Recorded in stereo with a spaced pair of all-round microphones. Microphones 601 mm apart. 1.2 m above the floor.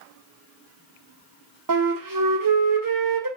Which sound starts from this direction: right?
A flute, at 1.7 s.